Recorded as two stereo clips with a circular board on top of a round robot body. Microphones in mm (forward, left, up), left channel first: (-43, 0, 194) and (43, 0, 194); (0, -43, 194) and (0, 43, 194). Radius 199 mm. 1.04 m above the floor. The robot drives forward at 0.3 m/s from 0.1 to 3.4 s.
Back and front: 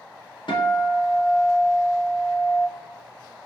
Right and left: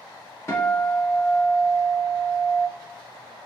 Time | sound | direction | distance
0.5 | a guitar | 150° right | 0.7 m